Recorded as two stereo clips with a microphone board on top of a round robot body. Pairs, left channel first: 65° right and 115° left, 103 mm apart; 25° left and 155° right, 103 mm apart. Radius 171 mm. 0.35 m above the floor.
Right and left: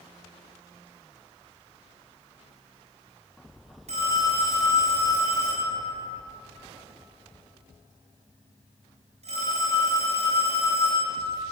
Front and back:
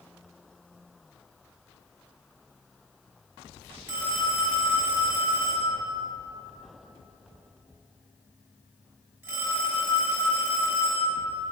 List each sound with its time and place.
3.9 s a phone ringing: 130° left, 5.5 m